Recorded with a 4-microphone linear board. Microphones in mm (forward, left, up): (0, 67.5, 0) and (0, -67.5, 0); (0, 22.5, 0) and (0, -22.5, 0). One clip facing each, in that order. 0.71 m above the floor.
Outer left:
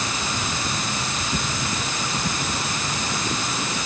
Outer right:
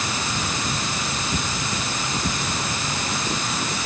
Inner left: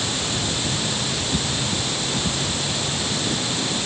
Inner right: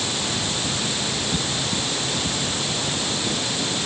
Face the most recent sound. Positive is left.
No sound to turn to.